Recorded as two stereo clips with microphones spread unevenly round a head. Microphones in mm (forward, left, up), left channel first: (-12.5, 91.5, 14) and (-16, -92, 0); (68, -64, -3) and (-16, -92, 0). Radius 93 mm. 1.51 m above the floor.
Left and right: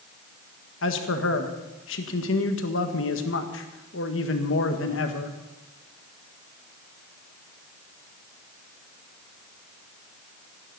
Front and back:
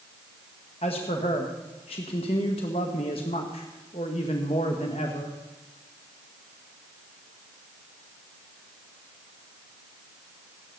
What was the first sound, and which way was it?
A man speaking, 65° left.